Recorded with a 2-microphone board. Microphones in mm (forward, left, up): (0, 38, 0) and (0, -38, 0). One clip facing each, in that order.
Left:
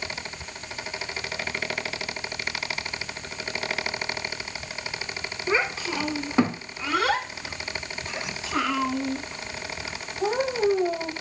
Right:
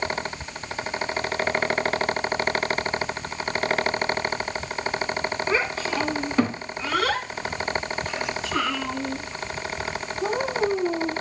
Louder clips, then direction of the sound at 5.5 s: Left 2 dB; 20° left (ahead or behind).